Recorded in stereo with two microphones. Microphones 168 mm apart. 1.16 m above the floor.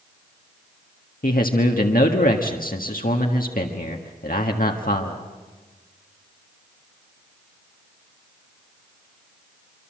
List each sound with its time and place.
1.2 s a man speaking: 70° left (ahead or behind), 1.6 m